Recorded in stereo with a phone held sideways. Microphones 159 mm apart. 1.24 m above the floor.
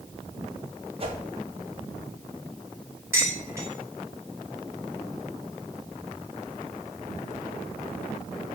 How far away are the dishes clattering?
About 3 m.